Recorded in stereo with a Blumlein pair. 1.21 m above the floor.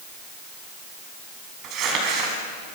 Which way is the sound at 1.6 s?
35° right.